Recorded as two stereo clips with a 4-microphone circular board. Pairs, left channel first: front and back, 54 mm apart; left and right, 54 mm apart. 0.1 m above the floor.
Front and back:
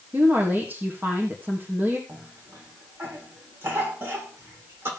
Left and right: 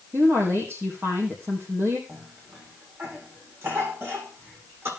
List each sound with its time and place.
0.1 s a woman speaking: 125° right, 3.5 m
2.1 s a cough: 135° right, 7.5 m